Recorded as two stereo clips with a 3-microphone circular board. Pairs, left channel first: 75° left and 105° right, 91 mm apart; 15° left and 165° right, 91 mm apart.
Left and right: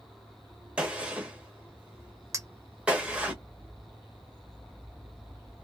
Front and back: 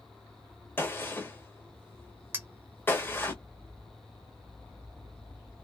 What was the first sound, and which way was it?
A gunshot, 35° right.